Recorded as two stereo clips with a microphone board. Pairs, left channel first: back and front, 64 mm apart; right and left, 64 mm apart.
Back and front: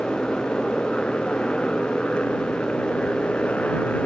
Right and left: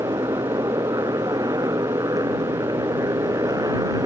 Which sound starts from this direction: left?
A motorcycle, at 0.0 s.